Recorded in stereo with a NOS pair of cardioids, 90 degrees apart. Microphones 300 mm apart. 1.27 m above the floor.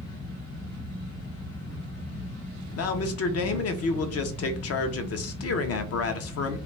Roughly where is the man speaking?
Ahead left.